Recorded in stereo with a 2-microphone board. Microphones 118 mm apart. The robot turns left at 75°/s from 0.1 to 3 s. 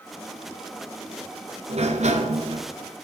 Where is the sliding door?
65° right, 1.2 m; by 2.7 s 135° right, 1.2 m.